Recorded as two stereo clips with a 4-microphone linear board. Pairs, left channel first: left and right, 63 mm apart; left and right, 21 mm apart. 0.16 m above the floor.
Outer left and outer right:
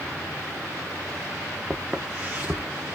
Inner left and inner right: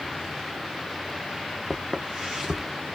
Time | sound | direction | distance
1.7 | footsteps | 25° right (ahead or behind) | 1.0 m